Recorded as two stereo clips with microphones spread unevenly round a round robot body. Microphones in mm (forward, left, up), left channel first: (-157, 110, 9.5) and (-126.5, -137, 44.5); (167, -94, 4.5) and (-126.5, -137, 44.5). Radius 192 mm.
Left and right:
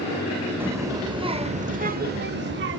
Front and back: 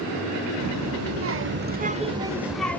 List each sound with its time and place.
0.6 s a child speaking: 170° right, 1.4 m; by 2.8 s 60° right, 1.2 m